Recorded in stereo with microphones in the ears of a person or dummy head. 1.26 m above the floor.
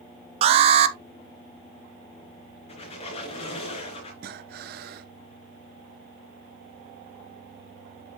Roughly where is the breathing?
Right.